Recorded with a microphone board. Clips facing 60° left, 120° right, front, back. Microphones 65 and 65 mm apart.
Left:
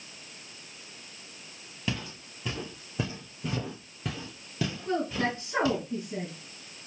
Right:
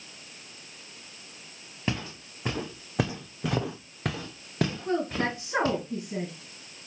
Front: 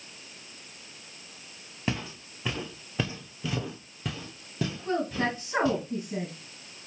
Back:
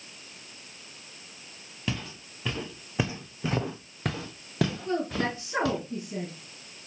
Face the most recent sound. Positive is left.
turn(degrees=-60)